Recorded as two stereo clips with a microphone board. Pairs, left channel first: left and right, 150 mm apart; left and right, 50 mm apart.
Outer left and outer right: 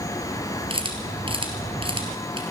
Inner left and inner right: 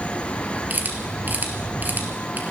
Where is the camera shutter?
35° right (ahead or behind), 2 m.